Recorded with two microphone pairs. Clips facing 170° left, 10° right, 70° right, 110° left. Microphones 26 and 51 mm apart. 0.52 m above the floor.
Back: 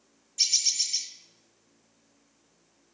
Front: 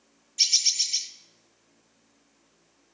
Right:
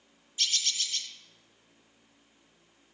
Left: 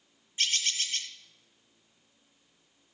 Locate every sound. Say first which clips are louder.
0.4 s a bird: front 3 dB, left 2 dB; 55° left, 0.8 m